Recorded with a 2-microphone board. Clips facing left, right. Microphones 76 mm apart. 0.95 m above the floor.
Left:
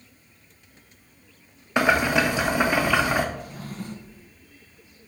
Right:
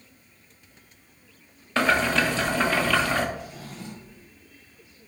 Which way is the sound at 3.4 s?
50° left (ahead or behind).